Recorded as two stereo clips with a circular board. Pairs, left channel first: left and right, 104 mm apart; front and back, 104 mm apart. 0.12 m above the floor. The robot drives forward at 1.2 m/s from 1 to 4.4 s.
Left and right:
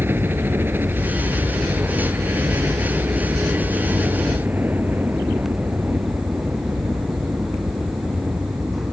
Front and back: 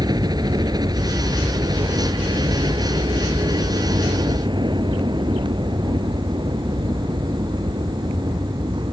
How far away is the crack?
No crack in this recording.